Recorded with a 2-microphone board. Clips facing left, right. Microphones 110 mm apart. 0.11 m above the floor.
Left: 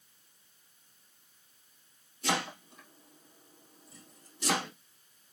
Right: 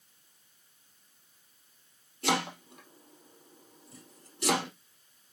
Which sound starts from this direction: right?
Chopping, at 2.2 s.